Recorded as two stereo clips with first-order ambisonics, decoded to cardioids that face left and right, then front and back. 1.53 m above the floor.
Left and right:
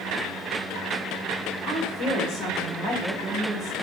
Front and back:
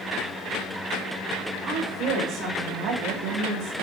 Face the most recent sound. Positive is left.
turn(degrees=-145)